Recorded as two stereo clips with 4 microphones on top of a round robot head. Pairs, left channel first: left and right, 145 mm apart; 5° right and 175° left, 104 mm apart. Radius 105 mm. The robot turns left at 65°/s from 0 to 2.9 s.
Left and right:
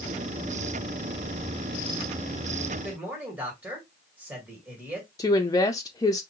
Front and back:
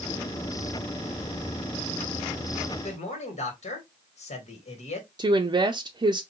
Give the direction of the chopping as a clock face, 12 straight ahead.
No chopping in this recording.